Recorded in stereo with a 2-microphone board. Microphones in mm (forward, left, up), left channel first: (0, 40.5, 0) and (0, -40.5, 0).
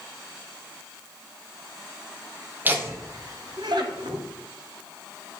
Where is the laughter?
25° right (ahead or behind), 1.0 m; by 4.2 s 75° right (ahead or behind), 1.2 m.